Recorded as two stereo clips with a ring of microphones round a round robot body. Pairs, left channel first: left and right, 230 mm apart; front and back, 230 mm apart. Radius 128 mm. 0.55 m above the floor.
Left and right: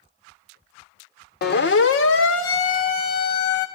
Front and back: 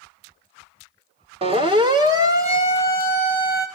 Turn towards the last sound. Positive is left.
turn(degrees=95)